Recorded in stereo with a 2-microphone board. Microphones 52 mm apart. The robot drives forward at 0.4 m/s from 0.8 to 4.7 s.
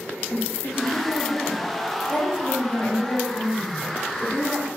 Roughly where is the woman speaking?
Left.